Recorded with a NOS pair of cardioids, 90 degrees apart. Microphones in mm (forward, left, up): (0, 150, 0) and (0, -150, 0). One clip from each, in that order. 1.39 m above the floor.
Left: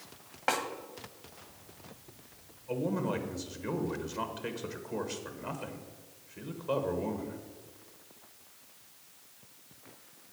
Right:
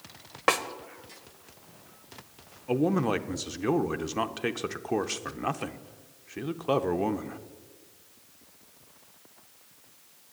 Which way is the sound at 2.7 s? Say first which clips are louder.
Right 7 dB; 55° right.